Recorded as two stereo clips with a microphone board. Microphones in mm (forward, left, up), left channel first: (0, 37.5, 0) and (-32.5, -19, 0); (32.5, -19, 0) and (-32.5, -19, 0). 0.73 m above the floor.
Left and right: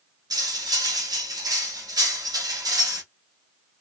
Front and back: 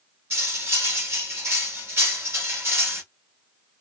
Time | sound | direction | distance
0.3 | cutlery clinking | 125° right | 1.1 m